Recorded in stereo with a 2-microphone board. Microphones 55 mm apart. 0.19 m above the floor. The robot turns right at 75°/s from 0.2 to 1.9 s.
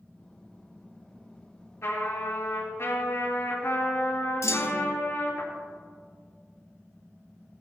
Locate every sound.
1.8 s a trumpet: 65° left (ahead or behind), 4 m
4.4 s a clunk: 80° left, 0.8 m